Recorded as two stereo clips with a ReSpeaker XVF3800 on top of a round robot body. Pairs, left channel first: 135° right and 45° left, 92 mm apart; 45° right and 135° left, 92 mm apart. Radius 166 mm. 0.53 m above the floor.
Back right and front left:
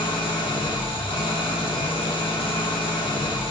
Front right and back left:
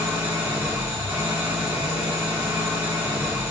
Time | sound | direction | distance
0.0 | an engine running | 155° right | 2.5 m